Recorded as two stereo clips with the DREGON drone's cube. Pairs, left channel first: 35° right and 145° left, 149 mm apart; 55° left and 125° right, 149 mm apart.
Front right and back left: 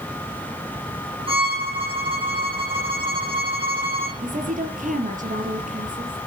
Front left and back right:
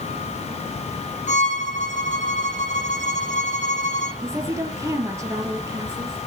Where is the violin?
95° left, 9 m.